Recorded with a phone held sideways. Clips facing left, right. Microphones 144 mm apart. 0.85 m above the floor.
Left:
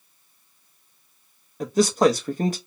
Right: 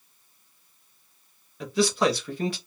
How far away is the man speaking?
About 0.7 m.